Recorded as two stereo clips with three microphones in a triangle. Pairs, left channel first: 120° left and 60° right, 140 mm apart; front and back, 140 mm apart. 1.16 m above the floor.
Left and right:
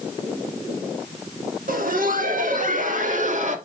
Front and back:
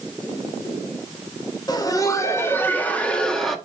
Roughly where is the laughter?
Ahead right.